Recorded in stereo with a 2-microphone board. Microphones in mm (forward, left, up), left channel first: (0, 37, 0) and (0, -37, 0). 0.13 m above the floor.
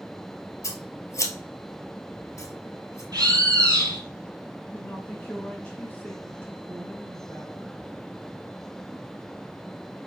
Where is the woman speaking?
20° left (ahead or behind), 1.6 m.